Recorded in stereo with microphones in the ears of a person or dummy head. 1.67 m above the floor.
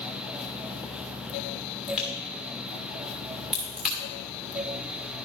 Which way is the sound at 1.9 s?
5° right (ahead or behind).